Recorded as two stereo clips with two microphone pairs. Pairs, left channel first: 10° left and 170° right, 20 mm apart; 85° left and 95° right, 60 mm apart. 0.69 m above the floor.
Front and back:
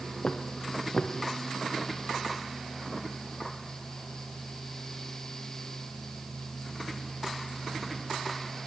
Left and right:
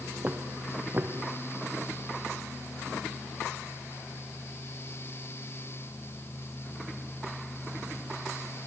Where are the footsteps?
35° right, 1.9 m.